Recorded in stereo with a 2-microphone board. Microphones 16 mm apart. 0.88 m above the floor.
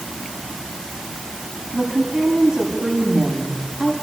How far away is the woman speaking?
About 6.5 m.